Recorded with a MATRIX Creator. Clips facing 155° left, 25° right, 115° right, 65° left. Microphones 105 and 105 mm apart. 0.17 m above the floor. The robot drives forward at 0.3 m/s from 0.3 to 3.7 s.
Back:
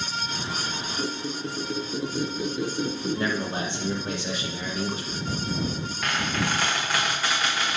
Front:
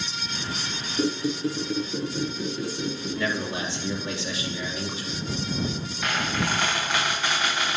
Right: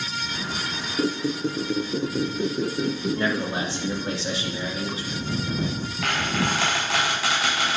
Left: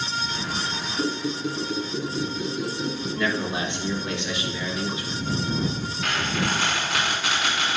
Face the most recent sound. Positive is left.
turn(degrees=-115)